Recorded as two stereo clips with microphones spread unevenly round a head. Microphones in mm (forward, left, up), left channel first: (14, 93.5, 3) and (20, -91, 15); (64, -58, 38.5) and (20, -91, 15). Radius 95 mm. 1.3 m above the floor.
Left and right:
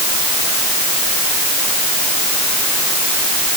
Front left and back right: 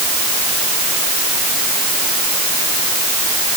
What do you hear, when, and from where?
Only background noise.